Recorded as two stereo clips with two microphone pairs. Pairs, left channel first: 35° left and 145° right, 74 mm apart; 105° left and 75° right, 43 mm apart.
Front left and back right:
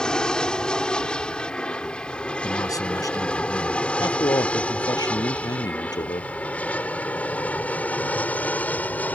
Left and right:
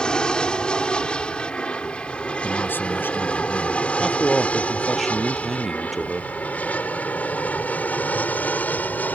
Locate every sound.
0.0 s an aircraft: 95° left
2.4 s a man speaking: 70° left
4.0 s a man speaking: 15° left